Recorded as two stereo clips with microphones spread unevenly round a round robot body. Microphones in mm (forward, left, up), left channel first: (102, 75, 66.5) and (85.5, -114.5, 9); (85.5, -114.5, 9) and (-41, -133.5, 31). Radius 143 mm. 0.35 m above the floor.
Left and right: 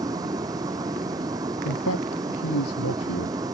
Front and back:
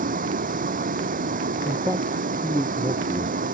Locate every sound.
0.0 s a vehicle: 170° right
1.6 s a man speaking: 110° left